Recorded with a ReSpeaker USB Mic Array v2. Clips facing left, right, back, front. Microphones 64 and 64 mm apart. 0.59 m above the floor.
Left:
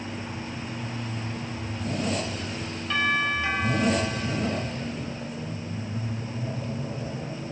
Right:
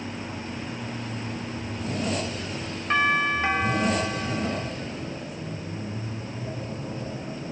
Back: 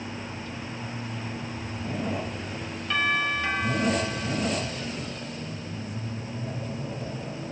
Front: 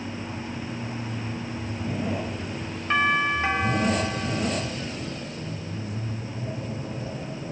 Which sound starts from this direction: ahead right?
A doorbell, at 2.9 s.